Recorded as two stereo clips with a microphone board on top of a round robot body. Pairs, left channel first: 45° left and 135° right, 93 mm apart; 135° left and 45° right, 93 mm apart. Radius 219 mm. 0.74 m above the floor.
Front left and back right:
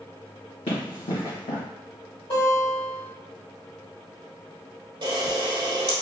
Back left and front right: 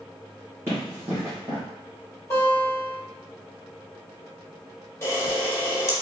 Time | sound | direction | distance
0.7 | running footsteps | 20° left | 1.9 m
2.3 | a guitar | 75° left | 1.7 m
5.0 | a camera shutter | 170° right | 1.7 m